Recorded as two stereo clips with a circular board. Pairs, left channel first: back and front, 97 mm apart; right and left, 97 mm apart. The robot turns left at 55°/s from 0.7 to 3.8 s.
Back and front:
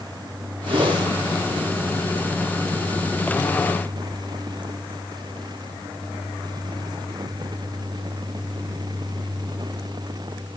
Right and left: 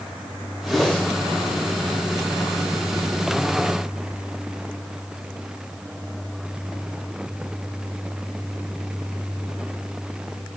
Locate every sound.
0.7 s a whoosh: straight ahead, 2.0 m; by 1.1 s 20° right, 2.0 m